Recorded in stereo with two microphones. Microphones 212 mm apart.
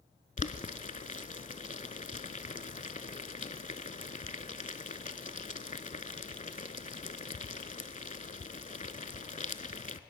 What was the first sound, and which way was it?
Boiling, 35° left (ahead or behind).